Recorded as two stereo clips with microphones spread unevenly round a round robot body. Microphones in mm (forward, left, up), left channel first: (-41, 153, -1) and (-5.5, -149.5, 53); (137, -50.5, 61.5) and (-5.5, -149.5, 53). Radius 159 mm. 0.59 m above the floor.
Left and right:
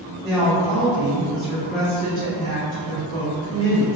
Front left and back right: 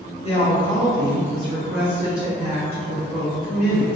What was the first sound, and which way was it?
A woman speaking, 20° left.